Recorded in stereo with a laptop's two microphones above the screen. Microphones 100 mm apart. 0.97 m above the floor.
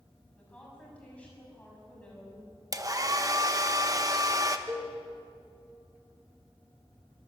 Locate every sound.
0.4 s a woman speaking: 15° left (ahead or behind), 6.5 m
2.7 s a hair dryer: 35° right (ahead or behind), 1.1 m
4.7 s a cowbell: 30° right (ahead or behind), 10 m